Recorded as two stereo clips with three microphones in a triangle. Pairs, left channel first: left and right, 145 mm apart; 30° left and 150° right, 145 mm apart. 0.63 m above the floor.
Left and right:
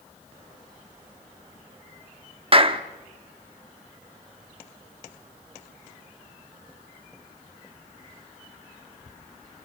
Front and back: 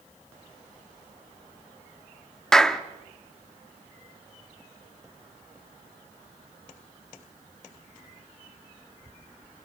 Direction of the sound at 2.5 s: 55° right.